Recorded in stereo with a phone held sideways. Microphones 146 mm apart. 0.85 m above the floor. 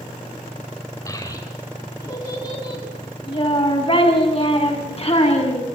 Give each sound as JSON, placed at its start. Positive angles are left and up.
{"t": 1.1, "sound": "a child speaking", "side_deg": 25, "distance_m": 6.0}